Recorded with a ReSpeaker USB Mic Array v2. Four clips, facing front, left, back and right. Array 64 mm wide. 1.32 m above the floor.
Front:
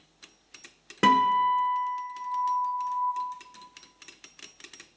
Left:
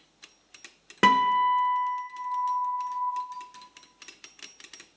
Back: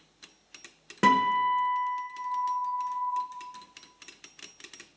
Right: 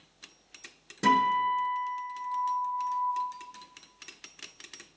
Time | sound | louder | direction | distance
1.0 | a guitar | left 3 dB, front 2 dB | 85° left | 1.4 m